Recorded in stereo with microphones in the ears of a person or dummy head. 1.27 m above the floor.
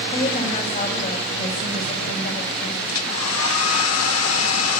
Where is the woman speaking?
35° left (ahead or behind), 4.5 m; by 2.8 s 45° left (ahead or behind), 7 m.